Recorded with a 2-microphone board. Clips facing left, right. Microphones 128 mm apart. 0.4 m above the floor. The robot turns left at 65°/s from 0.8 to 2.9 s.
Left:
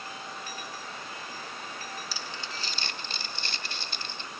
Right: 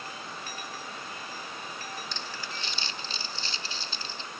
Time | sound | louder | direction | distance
2.1 | crumpling | even | 5° left (ahead or behind) | 0.6 m